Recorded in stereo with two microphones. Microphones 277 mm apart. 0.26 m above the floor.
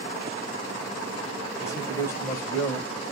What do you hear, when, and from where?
1.6 s a man speaking: 10° left (ahead or behind), 0.9 m